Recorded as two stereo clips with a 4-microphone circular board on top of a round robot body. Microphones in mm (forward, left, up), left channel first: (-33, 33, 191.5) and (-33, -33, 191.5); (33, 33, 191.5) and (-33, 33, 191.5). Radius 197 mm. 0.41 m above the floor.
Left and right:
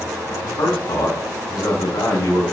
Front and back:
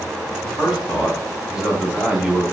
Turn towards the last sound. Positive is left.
turn(degrees=100)